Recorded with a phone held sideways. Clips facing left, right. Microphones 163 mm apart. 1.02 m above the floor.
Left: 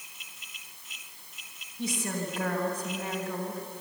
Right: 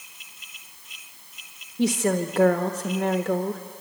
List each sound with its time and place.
1.8 s a woman speaking: 75° right (ahead or behind), 1.1 m